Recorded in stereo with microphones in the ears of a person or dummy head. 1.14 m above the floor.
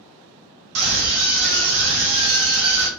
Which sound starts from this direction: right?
A scream, at 0.8 s.